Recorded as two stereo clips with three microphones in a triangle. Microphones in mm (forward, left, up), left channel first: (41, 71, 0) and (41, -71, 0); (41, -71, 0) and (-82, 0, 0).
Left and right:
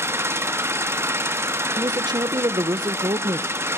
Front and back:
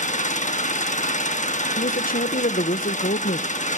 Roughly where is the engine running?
Ahead.